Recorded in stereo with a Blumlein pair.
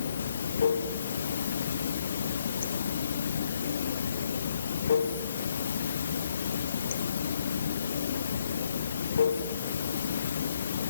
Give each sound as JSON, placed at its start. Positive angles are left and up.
{"t": 0.0, "sound": "running water", "azimuth_deg": 65, "distance_m": 1.0}